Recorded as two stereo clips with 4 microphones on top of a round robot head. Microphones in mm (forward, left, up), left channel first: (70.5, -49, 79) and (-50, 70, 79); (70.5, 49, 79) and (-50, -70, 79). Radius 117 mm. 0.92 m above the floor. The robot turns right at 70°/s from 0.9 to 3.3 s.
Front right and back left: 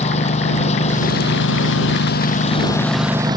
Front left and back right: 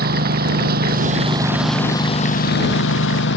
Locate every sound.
0.0 s a lawn mower: 100° right; by 3.4 s 70° left